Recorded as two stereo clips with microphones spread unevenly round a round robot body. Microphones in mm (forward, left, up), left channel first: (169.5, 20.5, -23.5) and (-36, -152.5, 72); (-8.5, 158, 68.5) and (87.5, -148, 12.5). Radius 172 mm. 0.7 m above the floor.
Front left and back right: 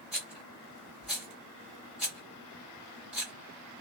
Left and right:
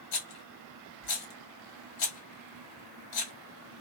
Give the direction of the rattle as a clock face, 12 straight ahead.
8 o'clock.